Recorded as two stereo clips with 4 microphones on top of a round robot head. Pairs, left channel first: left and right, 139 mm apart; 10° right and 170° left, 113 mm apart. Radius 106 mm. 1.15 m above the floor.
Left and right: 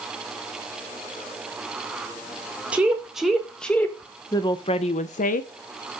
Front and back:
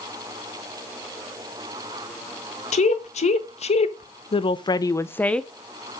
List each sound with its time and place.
2.7 s a woman speaking: 10° right, 1.4 m; by 5.5 s 75° left, 0.7 m